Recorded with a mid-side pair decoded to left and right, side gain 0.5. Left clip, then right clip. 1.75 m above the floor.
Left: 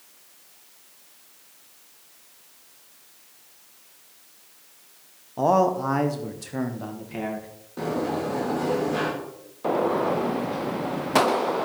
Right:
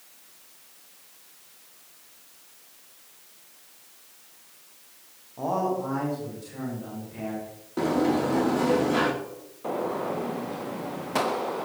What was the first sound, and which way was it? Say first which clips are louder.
A man speaking: left 7 dB; 55° left.